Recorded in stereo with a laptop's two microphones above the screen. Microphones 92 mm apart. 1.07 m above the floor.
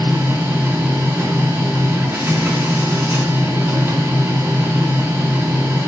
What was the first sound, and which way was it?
A machine running, 30° right (ahead or behind).